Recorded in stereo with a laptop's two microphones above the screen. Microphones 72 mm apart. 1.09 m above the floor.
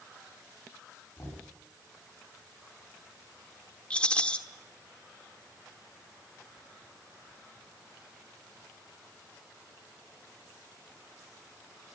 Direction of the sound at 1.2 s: 40° left (ahead or behind).